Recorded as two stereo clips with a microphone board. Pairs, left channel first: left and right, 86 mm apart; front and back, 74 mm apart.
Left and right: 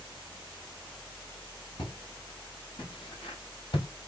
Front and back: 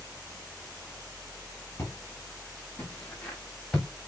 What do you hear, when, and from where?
1.8 s footsteps: 55° left, 5 m; by 3.9 s 75° left, 5 m